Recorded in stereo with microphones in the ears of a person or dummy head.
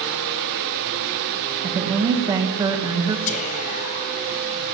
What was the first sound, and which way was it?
A woman speaking, 25° right (ahead or behind).